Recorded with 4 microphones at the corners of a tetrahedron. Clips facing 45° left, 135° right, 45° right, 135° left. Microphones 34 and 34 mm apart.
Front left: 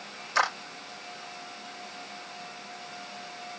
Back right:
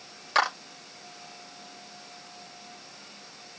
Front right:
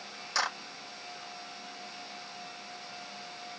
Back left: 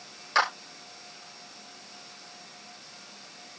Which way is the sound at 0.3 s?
165° right.